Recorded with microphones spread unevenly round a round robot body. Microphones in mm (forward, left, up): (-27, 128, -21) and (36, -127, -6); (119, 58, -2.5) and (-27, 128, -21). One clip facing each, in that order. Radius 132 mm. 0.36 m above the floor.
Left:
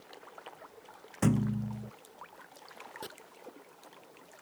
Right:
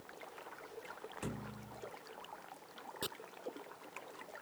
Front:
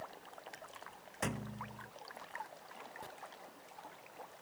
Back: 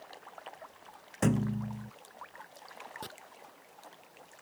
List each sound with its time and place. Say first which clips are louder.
1.2 s a thud: left 18 dB, back 12 dB; 115° left
3.0 s chopping: right 1 dB, back 7 dB; 155° right